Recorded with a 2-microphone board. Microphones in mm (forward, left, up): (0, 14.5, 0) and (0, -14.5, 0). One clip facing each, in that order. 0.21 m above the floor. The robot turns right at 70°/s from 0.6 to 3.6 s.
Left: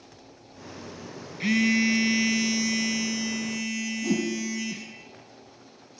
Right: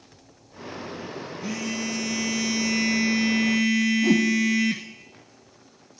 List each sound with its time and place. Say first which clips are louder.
1.4 s a phone buzzing: left 9 dB; 100° left, 0.9 m; by 4.9 s 105° right, 0.9 m
4.0 s a whoosh: right 4 dB; 35° right (ahead or behind), 0.8 m